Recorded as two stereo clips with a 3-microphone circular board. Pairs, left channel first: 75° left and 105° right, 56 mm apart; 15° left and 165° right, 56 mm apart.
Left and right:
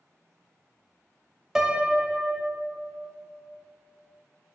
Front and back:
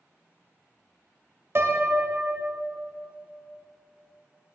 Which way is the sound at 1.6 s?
175° left.